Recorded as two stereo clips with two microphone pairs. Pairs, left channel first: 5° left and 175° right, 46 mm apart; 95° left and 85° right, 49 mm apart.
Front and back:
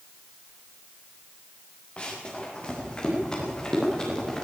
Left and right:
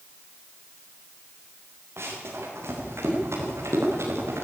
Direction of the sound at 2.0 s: 60° right.